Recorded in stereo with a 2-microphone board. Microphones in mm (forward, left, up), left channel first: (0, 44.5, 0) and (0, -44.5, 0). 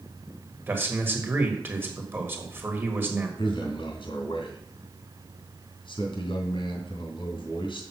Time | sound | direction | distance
0.7 | a man speaking | 25° right (ahead or behind) | 1.3 m
3.4 | a man speaking | 70° left (ahead or behind) | 2.5 m